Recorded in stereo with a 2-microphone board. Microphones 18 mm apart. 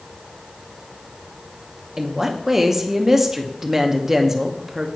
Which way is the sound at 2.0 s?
20° right (ahead or behind).